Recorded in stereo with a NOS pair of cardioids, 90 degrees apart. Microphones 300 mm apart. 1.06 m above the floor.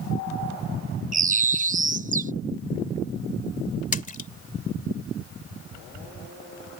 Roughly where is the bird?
Ahead right.